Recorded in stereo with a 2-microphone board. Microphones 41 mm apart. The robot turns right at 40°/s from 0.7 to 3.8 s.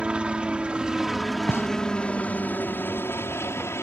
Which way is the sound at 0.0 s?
25° right (ahead or behind).